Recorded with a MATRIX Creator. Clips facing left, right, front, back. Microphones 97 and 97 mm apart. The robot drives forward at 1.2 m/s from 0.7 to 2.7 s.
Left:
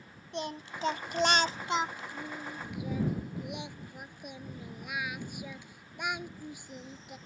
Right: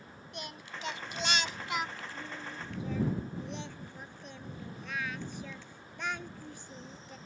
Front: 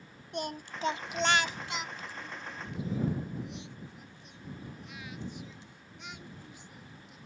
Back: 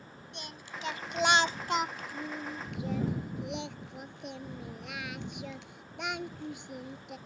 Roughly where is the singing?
Ahead left.